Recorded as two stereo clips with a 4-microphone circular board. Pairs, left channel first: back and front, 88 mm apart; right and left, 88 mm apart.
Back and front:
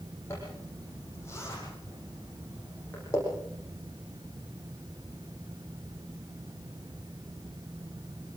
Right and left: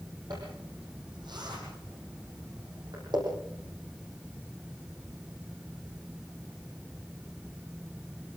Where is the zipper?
125° left, 9.5 m.